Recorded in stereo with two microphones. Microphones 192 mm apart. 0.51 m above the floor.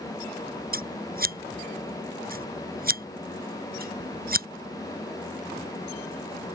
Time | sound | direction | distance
0.7 | scissors | 50° right (ahead or behind) | ?